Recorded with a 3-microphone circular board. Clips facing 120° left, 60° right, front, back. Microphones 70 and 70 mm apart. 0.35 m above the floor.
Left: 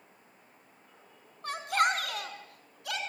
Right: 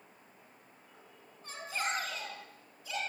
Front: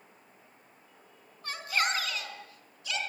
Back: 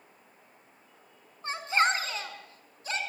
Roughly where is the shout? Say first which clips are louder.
Left 9 dB, back 5 dB; behind left.